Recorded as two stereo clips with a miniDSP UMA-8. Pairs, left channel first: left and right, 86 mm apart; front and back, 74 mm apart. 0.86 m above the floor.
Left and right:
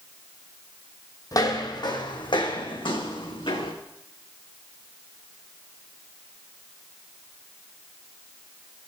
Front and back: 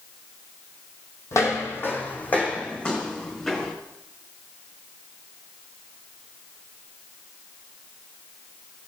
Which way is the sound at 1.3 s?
45° left.